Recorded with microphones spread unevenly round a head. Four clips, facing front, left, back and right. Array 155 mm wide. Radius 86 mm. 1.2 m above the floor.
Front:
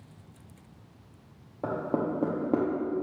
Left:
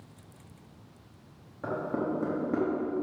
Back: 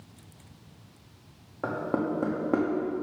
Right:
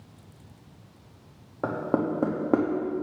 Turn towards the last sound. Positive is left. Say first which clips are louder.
# right 5 dB, even
turn(degrees=-85)